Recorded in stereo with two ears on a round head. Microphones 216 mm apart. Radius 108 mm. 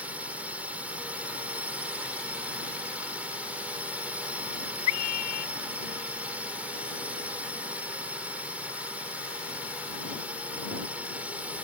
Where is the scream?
75° left (ahead or behind).